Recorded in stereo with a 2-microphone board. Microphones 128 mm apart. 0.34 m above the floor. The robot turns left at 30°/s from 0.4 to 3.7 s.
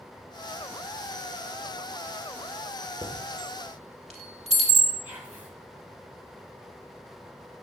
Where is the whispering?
15° right (ahead or behind), 1.8 m.